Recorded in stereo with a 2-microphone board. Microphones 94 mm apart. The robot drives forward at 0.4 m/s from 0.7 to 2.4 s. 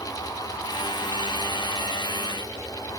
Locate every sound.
Only background noise.